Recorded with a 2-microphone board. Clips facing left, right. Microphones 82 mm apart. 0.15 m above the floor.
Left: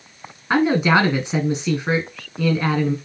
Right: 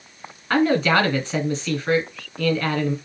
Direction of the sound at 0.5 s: 15° left (ahead or behind).